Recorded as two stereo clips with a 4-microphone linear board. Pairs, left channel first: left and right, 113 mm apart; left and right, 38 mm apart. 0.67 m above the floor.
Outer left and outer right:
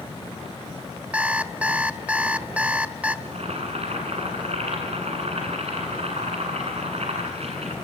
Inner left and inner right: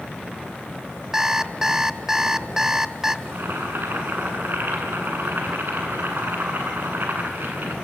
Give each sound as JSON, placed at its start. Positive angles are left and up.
{"t": 1.1, "sound": "an alarm clock", "side_deg": -10, "distance_m": 1.1}
{"t": 3.2, "sound": "boiling", "side_deg": -65, "distance_m": 8.5}